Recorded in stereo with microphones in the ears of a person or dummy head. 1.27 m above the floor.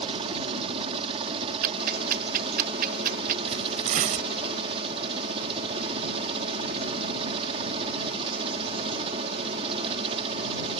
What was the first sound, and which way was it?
A helicopter, 30° right (ahead or behind).